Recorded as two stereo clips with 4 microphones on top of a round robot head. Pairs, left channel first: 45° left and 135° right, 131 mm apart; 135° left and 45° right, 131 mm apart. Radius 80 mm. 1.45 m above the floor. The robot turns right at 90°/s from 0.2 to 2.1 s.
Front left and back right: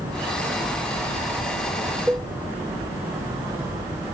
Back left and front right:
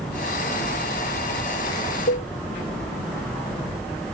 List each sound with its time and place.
2.1 s a cowbell: 135° left; by 2.3 s 140° left